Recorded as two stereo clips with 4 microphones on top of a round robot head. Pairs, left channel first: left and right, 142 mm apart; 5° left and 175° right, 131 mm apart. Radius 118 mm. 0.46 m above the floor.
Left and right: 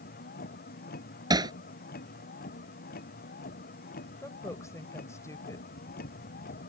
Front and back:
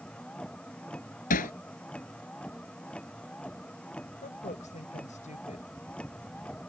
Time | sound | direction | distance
0.0 | a vehicle | 85° left | ?
1.3 | hammering | 30° right | ?
4.2 | a woman speaking | 20° left | ?